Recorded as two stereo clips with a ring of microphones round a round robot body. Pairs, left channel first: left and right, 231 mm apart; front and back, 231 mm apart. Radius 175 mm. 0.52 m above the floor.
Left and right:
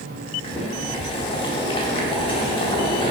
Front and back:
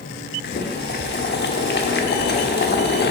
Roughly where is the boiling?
Ahead left.